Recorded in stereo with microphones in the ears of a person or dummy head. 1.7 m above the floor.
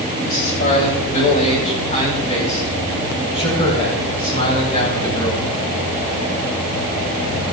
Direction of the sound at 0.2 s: 45° left (ahead or behind).